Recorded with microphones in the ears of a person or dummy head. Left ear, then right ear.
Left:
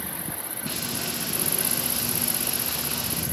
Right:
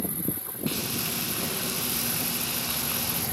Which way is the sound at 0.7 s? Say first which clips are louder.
Even; 15° right (ahead or behind).